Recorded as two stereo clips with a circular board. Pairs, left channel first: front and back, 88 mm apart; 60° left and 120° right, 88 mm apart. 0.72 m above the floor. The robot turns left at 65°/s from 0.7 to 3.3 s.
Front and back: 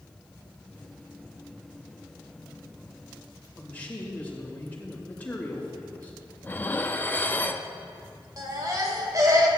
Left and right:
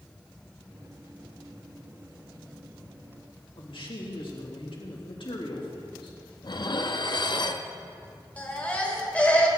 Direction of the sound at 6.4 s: 65° left.